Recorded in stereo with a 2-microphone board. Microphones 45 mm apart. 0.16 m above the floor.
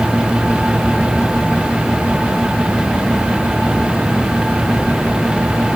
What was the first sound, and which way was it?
Only background noise.